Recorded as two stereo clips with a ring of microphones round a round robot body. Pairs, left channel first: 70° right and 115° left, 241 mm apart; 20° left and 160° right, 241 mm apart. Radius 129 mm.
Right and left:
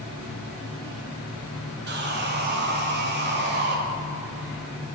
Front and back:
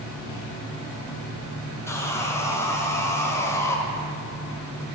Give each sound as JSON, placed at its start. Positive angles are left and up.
{"t": 1.9, "sound": "sawing", "azimuth_deg": 95, "distance_m": 1.4}